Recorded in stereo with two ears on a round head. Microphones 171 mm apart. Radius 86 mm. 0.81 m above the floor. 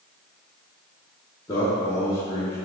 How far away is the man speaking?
About 1.3 m.